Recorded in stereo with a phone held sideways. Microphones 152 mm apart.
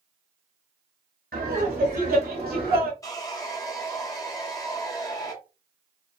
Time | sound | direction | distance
1.3 | laughter | 85° right | 1.9 m
3.0 | sawing | 25° left (ahead or behind) | 0.9 m